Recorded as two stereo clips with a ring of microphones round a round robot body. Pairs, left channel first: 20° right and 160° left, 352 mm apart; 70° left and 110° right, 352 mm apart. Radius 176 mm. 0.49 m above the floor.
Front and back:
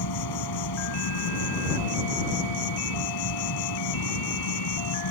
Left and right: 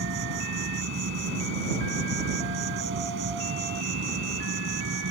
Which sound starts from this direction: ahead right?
An insect, at 0.0 s.